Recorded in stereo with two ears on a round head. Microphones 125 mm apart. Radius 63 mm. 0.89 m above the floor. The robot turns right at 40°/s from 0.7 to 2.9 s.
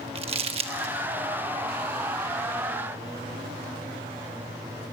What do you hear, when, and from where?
0.1 s crumpling: 45° right (ahead or behind), 1.2 m; by 0.9 s 50° right (ahead or behind), 1.2 m